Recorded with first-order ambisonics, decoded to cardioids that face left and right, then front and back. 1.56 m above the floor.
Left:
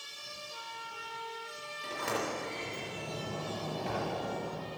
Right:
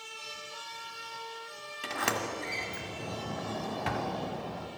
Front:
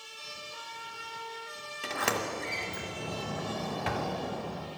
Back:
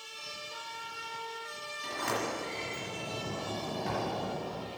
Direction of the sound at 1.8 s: 40° right.